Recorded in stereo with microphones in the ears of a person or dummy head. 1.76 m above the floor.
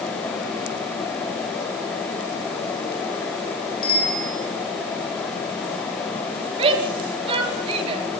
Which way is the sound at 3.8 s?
50° left (ahead or behind).